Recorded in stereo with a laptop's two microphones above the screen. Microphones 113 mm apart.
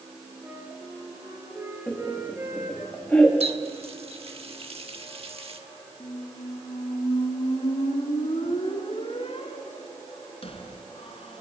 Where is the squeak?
60° left (ahead or behind), 1.8 m.